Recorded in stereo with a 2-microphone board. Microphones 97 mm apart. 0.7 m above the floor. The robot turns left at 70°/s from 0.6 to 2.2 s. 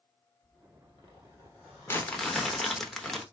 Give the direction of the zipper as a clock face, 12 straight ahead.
9 o'clock.